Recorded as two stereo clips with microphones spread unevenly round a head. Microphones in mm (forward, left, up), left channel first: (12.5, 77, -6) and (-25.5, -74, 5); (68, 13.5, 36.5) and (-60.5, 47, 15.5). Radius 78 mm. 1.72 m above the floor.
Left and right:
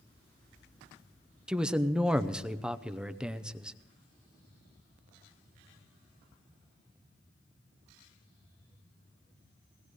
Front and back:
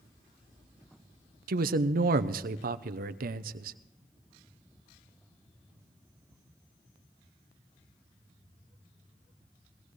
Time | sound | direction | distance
1.5 | a man speaking | 170° left | 0.7 m